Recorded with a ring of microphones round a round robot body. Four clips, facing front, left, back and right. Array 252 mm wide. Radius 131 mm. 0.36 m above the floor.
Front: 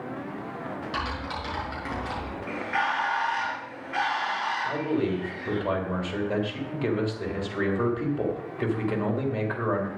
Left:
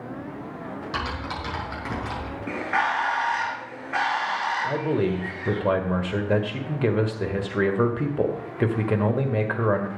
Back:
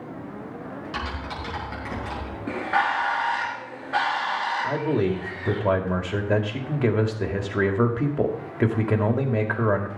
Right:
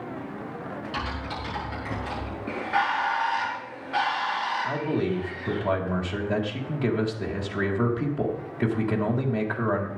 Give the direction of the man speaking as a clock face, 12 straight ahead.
7 o'clock.